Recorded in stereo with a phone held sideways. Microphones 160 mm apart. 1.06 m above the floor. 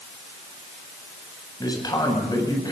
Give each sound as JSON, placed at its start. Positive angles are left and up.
{"t": 1.6, "sound": "a man speaking", "side_deg": 25, "distance_m": 8.0}